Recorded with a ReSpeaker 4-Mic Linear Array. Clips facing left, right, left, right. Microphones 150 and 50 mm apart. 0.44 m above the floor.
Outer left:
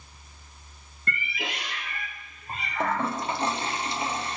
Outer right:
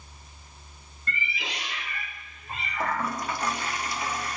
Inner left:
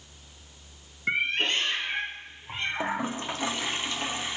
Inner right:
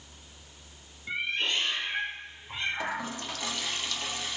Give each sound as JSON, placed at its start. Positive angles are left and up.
{"t": 1.1, "sound": "a cat meowing", "side_deg": 65, "distance_m": 1.3}
{"t": 2.8, "sound": "a toilet flushing", "side_deg": 30, "distance_m": 0.6}